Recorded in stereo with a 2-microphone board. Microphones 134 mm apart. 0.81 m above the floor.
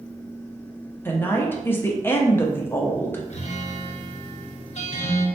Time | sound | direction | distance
1.1 | a woman speaking | 15° left (ahead or behind) | 0.6 m
3.3 | a guitar | 60° left (ahead or behind) | 0.6 m